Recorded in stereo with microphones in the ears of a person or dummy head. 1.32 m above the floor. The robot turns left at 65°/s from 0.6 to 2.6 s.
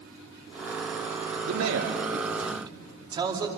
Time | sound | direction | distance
1.4 | a man speaking | 80° right | 2.5 m